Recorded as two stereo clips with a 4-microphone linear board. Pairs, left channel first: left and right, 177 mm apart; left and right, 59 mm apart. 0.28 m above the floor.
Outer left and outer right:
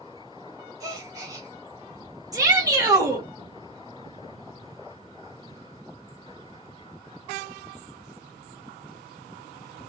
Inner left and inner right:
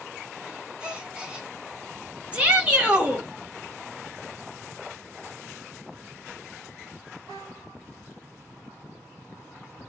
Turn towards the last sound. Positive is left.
turn(degrees=-20)  # may be behind; listen again after turning